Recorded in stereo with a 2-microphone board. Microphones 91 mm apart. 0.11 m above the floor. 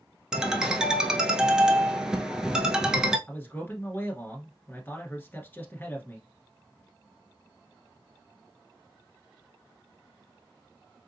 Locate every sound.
0.3 s a ringtone: 5° right (ahead or behind), 0.6 m
3.3 s a man speaking: 20° left (ahead or behind), 1.2 m